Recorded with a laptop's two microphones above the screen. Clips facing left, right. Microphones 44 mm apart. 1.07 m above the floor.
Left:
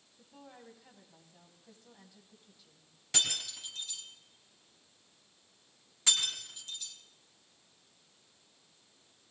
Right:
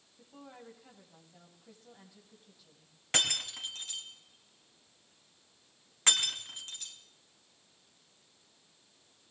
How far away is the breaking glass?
About 3.5 m.